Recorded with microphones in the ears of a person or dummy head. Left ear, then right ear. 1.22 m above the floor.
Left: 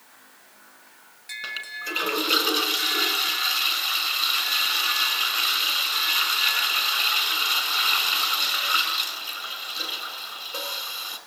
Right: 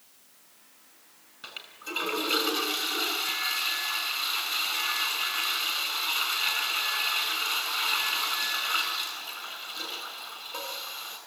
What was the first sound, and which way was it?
A toilet flushing, 20° left (ahead or behind).